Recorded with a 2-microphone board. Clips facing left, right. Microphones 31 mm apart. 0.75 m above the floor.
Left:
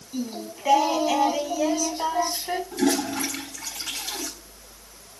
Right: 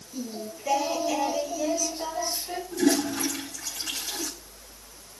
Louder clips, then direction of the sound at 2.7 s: Right 1 dB; 45° left (ahead or behind).